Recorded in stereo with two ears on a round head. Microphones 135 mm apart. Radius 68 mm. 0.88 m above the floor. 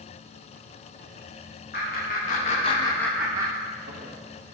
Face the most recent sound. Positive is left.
turn(degrees=-60)  # may be behind; listen again after turning